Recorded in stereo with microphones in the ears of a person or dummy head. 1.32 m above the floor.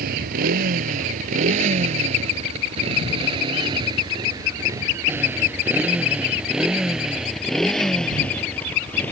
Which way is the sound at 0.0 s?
40° right (ahead or behind).